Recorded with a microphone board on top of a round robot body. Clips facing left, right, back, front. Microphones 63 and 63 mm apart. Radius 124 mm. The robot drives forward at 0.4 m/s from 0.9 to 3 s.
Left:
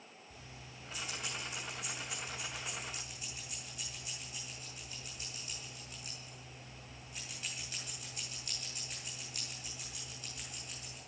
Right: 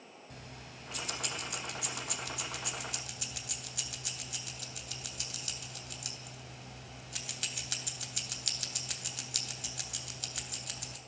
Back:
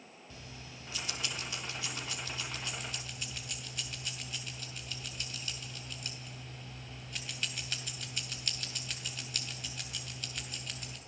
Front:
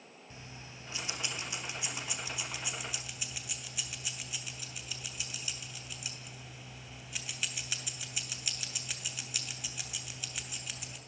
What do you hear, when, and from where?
0.3 s keys jangling: 65° right, 3 m; by 11.0 s 80° right, 2.5 m